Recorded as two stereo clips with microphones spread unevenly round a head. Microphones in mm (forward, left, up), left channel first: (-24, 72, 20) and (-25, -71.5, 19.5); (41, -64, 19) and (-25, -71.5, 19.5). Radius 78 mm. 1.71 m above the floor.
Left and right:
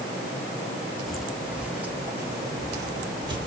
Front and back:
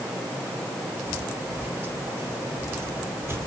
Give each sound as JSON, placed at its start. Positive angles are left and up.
{"t": 1.1, "sound": "footsteps", "azimuth_deg": 175, "distance_m": 1.8}